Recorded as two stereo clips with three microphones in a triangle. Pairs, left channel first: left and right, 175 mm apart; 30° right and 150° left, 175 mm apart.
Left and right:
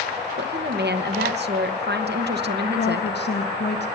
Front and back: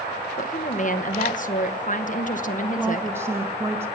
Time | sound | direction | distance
0.4 | a woman speaking | 75° right | 0.9 m
2.8 | a woman speaking | 75° left | 1.2 m